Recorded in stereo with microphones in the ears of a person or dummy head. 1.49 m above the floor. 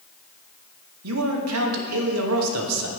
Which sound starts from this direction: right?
A man speaking, at 1.0 s.